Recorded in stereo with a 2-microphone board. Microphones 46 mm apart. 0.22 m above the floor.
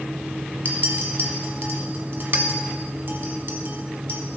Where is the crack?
No crack in this recording.